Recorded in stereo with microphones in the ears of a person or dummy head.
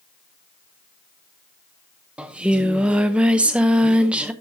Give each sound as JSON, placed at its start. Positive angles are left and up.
{"t": 2.2, "sound": "singing", "side_deg": -5, "distance_m": 0.7}